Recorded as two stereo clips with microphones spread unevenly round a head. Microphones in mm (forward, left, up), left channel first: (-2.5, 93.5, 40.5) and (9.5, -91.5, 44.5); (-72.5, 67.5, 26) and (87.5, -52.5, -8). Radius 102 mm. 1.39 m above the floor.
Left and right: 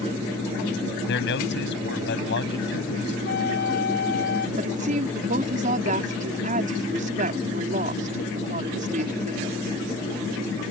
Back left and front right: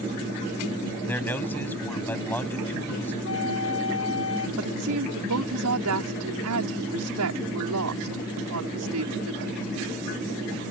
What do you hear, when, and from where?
1.1 s a man speaking: 65° left
3.2 s a flute: 130° left
4.6 s a woman speaking: 35° right